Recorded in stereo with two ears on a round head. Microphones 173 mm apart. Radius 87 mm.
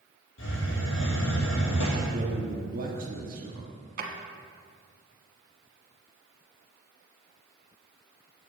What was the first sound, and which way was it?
A hiss, 60° left (ahead or behind).